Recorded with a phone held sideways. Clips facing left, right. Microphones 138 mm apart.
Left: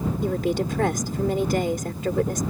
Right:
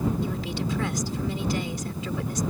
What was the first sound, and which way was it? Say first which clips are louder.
A woman speaking: left 6 dB; 55° left (ahead or behind).